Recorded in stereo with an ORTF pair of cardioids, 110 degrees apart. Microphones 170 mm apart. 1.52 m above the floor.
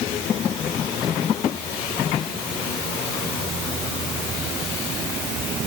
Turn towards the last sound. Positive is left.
No sound to turn to.